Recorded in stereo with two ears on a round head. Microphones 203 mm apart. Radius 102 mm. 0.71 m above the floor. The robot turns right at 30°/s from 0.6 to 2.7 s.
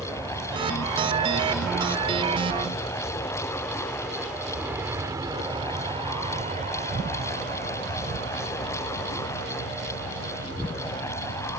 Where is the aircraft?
15° right (ahead or behind); by 11.6 s 60° right (ahead or behind).